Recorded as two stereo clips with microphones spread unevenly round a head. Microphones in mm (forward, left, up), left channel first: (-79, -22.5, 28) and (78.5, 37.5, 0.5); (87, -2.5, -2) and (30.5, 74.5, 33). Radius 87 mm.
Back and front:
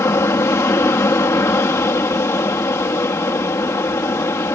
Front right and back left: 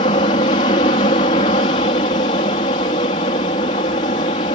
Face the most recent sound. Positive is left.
turn(degrees=-85)